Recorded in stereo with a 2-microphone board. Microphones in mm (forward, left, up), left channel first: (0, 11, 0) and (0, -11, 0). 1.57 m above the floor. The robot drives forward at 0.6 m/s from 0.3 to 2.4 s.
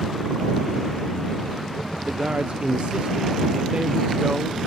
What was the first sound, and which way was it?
A man speaking, 75° right (ahead or behind).